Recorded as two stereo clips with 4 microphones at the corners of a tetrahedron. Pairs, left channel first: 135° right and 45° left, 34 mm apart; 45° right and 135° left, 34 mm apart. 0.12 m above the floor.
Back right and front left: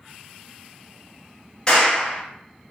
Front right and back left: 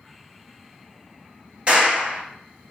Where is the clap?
170° left, 1.1 m.